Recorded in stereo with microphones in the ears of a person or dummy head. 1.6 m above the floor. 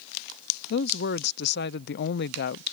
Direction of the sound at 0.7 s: 55° left (ahead or behind).